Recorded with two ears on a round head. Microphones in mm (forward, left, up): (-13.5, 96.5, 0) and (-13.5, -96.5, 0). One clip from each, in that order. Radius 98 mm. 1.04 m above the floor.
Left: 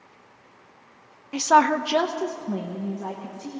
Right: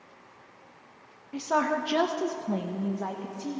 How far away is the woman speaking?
About 0.6 m.